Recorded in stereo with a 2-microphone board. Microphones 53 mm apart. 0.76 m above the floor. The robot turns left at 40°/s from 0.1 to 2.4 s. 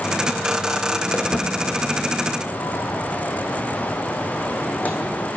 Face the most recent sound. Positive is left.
turn(degrees=25)  # may be behind; listen again after turning